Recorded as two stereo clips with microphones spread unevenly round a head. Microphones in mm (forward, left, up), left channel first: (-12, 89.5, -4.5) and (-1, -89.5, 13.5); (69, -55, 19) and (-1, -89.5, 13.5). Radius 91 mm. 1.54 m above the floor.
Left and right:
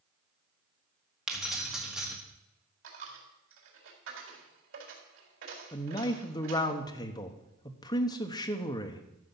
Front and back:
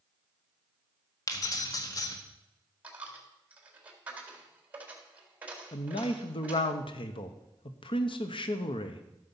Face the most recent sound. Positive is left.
turn(degrees=25)